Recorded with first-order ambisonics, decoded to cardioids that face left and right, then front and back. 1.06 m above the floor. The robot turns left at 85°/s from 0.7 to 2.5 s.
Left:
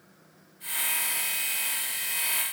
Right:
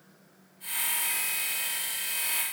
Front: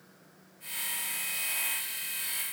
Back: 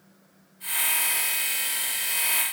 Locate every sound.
Only background noise.